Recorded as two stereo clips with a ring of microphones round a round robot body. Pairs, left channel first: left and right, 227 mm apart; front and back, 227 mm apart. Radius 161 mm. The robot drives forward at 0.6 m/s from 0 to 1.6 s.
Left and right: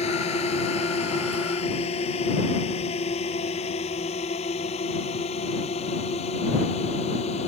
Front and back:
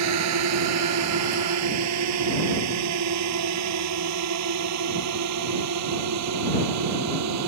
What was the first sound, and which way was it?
A drone, 165° left.